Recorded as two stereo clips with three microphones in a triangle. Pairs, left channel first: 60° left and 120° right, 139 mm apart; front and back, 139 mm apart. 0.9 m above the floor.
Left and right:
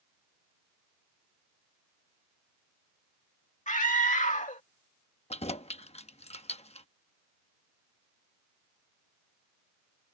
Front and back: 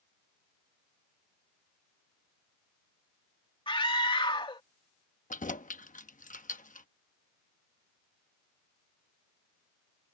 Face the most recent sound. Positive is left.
turn(degrees=20)